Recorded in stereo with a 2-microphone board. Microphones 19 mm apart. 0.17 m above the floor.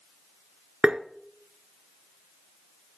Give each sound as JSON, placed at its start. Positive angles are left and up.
{"t": 0.8, "sound": "tapping", "side_deg": -60, "distance_m": 0.8}